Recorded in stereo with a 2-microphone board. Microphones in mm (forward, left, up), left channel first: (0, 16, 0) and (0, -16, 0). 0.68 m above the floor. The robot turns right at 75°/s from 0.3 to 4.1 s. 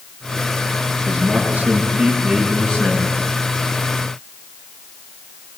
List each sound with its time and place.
1.1 s a man speaking: 100° right, 8 m; by 3.2 s 55° left, 8 m